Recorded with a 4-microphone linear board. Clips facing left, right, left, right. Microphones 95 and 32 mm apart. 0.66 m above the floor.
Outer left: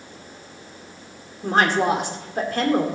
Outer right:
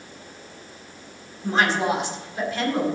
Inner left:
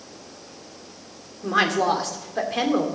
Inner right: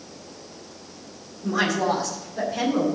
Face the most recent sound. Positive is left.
turn(degrees=60)  # may be behind; listen again after turning